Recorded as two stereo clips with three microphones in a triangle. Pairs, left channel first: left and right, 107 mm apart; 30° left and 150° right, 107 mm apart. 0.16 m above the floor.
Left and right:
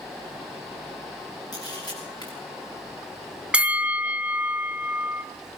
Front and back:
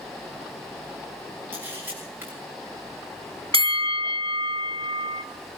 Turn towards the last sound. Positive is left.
turn(degrees=-170)